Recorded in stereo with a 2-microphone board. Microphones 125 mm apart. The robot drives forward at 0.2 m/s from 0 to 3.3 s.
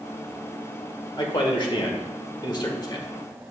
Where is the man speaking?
40° left (ahead or behind), 1.2 m; by 3.0 s 35° left (ahead or behind), 1.4 m.